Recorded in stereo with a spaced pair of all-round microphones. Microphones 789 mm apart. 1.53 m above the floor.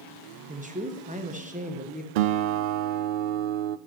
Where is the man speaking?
10° right (ahead or behind), 1.0 m.